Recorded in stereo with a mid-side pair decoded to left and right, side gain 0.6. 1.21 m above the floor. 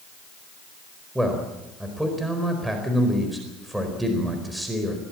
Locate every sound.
1.1 s a man speaking: 10° right, 4.5 m